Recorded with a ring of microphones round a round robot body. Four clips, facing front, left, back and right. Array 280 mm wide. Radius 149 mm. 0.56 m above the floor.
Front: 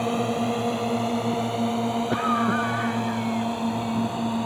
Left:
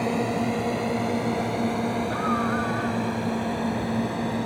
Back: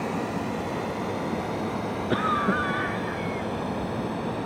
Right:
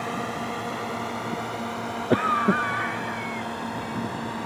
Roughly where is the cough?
Right.